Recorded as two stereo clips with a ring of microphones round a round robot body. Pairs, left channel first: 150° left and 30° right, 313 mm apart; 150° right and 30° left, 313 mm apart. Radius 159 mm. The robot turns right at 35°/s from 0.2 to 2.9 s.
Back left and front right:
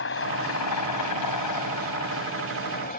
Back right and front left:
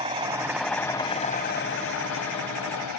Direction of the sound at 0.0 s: 105° left.